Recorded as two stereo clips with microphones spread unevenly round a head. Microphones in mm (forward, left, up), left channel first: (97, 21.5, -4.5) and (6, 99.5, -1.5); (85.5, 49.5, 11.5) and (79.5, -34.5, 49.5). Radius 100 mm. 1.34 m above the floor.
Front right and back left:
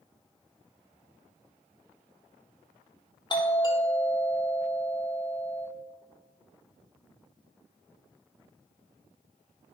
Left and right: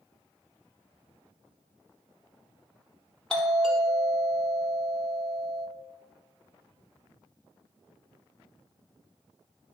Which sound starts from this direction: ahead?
A doorbell, at 3.3 s.